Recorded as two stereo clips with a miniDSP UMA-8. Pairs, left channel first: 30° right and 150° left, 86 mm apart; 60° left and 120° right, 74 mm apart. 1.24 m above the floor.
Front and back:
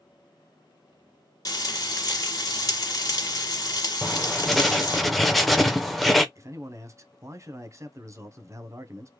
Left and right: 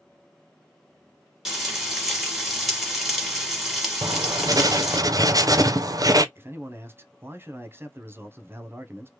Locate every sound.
1.4 s frying: 40° right, 1.4 m
4.0 s writing: 120° right, 0.5 m
6.3 s a man speaking: 170° right, 0.7 m